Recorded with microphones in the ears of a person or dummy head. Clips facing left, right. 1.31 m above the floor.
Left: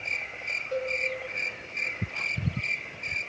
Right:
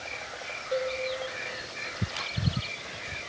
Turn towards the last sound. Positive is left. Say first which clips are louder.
# right 1 dB
turn(degrees=-10)  # may be behind; listen again after turning